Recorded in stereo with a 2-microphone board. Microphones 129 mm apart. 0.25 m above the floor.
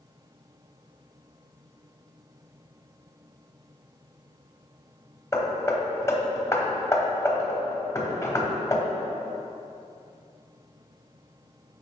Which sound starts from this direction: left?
Hammering, at 5.3 s.